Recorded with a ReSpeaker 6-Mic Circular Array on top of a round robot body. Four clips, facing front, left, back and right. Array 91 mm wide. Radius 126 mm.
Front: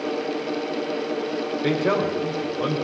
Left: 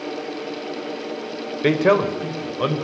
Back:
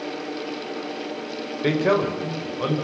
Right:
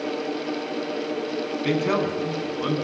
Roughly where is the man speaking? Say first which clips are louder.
Left 7 dB, back 2 dB; left.